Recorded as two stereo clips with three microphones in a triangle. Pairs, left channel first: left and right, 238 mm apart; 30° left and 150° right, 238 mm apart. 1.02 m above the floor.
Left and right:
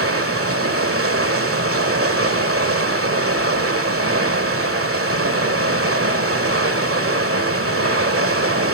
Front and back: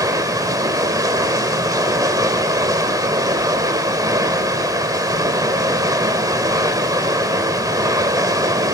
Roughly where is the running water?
Right.